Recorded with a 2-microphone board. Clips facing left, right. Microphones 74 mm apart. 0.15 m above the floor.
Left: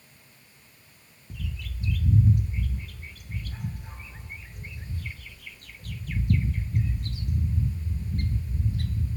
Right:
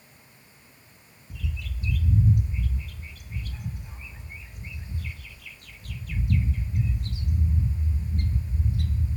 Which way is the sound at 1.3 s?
45° left (ahead or behind).